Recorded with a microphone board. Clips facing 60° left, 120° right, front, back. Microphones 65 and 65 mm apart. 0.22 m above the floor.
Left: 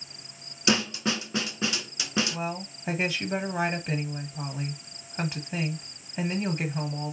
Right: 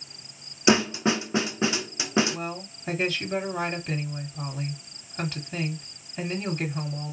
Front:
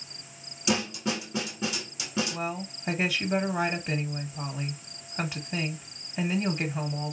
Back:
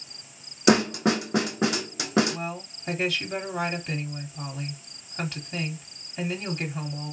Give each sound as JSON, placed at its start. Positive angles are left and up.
{"t": 0.7, "sound": "a snare drum", "azimuth_deg": 175, "distance_m": 0.5}
{"t": 2.3, "sound": "a woman speaking", "azimuth_deg": 35, "distance_m": 1.3}